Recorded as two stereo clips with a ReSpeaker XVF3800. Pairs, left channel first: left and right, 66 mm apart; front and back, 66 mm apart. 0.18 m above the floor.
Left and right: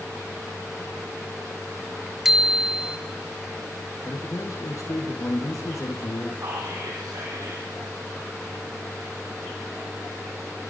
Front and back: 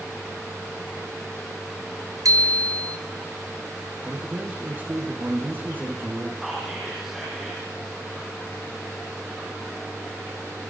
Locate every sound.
2.2 s a bicycle bell: 175° right, 2.5 m
4.0 s a man speaking: 125° left, 6 m
6.4 s whispering: 95° right, 5.5 m